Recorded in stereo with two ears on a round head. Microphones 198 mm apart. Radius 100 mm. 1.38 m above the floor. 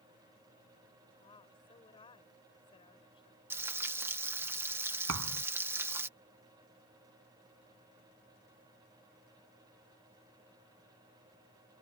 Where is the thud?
80° right.